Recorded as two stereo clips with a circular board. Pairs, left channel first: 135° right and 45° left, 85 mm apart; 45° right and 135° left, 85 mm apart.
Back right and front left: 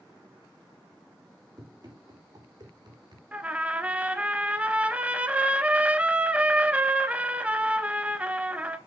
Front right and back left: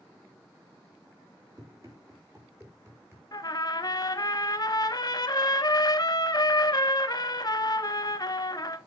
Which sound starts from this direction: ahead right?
A trumpet, at 3.3 s.